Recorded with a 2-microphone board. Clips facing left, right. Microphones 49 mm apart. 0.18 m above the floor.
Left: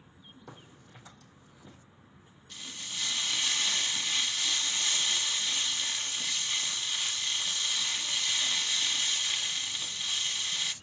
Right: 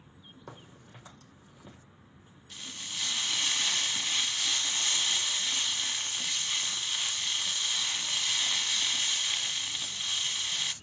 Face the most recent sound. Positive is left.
turn(degrees=-10)  # may be behind; listen again after turning